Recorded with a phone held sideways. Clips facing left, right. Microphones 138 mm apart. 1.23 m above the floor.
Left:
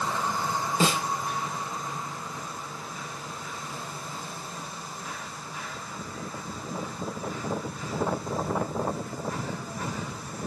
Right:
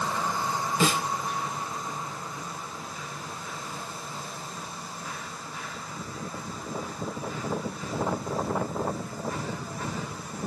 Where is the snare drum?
25° left (ahead or behind), 0.9 m.